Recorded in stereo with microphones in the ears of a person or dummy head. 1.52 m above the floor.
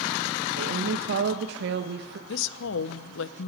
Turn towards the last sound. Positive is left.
turn(degrees=75)  # may be behind; listen again after turning